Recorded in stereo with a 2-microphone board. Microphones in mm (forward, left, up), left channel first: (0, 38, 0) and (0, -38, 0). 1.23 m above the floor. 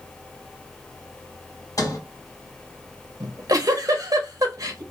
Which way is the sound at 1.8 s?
50° left (ahead or behind).